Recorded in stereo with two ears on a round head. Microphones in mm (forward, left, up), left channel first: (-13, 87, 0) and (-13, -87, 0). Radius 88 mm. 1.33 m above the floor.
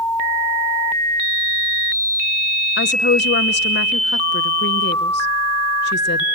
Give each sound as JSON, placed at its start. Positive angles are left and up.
{"t": 2.8, "sound": "a woman speaking", "side_deg": 55, "distance_m": 1.0}